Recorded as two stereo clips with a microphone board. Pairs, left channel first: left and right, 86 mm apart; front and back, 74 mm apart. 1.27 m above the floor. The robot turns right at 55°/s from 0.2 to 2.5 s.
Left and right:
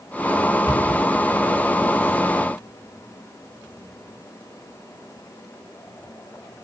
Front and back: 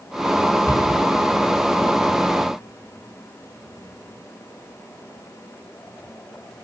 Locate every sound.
0.7 s a cupboard door: 45° left, 2.5 m; by 1.0 s 65° left, 2.5 m